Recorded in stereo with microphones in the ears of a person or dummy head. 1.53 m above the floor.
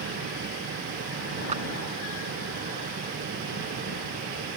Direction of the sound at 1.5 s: 35° right (ahead or behind).